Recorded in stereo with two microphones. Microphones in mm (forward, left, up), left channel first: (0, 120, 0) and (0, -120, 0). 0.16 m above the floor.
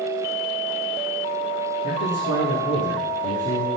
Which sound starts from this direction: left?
A man speaking, at 1.8 s.